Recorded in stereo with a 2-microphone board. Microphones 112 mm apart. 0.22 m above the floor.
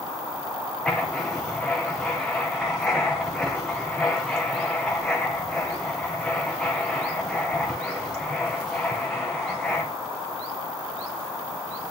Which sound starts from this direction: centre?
Writing, at 0.8 s.